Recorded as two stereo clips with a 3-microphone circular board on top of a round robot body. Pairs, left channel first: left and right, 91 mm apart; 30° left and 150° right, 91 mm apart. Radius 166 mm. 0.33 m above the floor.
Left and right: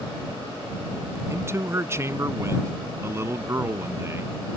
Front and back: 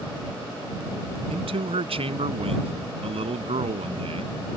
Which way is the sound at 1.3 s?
150° right.